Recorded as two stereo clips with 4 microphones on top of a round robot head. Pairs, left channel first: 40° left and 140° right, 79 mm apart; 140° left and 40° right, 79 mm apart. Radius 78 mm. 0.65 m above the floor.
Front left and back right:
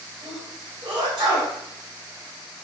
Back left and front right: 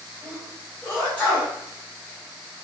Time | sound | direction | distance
0.2 | a sneeze | 145° right | 1.8 m